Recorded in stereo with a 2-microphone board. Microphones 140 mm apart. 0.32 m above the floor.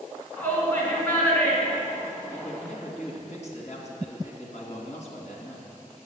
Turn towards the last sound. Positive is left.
turn(degrees=55)  # may be behind; listen again after turning